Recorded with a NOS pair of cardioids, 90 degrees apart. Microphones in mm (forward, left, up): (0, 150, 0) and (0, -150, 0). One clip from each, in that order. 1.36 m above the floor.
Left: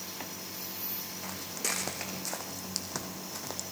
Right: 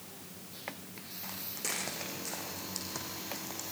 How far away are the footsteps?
About 6 m.